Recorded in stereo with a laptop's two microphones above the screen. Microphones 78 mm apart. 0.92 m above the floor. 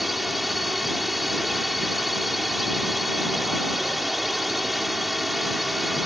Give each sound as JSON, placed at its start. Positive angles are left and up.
{"t": 0.0, "sound": "a drone", "side_deg": 0}